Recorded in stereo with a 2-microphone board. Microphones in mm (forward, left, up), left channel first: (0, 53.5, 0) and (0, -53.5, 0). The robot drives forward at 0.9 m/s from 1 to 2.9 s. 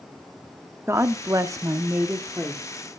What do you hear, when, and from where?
0.9 s a woman speaking: 25° right (ahead or behind), 0.8 m; by 3.0 s 15° right (ahead or behind), 1.4 m